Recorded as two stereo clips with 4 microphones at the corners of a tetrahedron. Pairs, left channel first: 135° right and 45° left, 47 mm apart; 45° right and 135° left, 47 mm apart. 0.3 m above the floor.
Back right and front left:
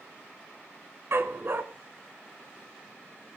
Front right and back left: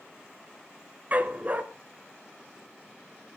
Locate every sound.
1.1 s a dog barking: 80° left, 1.1 m